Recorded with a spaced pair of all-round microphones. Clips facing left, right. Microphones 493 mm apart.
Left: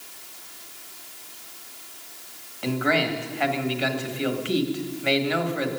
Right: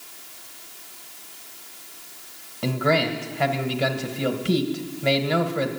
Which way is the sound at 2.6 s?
60° right (ahead or behind).